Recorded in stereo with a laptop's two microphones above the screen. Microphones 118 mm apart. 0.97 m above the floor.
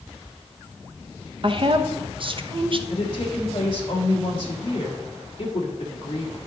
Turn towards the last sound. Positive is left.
turn(degrees=45)  # may be behind; listen again after turning